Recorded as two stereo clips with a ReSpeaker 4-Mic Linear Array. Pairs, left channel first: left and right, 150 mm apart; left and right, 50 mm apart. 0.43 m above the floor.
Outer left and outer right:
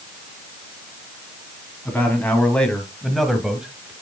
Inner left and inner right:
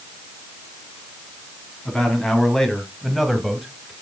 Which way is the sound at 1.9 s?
10° left (ahead or behind).